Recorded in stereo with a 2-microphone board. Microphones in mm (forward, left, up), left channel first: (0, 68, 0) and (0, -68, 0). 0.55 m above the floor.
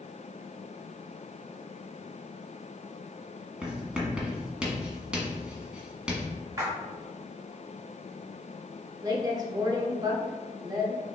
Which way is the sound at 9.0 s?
30° right (ahead or behind).